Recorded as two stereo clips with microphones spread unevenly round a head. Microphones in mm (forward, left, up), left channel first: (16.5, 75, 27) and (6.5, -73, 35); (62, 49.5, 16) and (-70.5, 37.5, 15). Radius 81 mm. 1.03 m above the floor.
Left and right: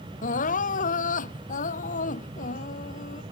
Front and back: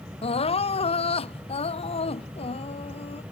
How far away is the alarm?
I don't hear an alarm.